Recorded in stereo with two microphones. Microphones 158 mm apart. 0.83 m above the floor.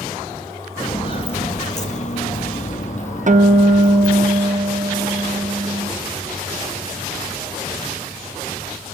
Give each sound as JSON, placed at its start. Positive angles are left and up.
{"t": 0.8, "sound": "footsteps", "side_deg": 30, "distance_m": 1.0}
{"t": 3.3, "sound": "a guitar", "side_deg": -55, "distance_m": 0.5}